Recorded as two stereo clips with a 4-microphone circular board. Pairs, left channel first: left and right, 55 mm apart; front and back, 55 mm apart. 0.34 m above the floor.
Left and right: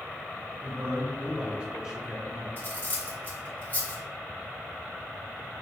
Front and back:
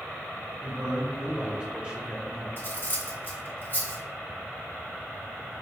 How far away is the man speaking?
About 1.6 m.